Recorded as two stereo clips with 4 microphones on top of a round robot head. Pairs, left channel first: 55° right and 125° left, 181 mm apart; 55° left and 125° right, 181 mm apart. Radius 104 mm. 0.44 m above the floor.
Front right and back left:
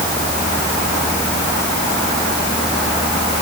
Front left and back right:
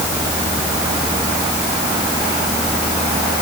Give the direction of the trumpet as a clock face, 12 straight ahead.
No trumpet in this recording.